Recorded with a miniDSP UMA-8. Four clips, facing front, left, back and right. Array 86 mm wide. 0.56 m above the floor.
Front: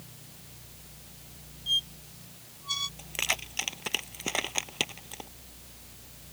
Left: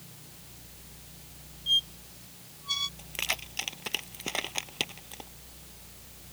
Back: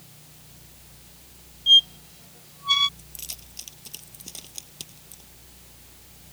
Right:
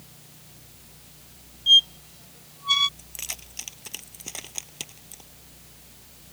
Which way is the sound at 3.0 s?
25° left.